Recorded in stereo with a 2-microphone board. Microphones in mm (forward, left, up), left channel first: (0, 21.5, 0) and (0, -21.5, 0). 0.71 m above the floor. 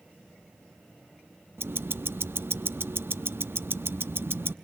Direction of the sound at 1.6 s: 65° right (ahead or behind).